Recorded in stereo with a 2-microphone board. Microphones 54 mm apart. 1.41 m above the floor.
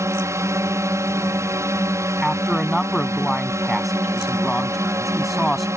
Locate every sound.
0.0 s a drone: 65° right (ahead or behind)
2.2 s a man speaking: centre (ahead or behind)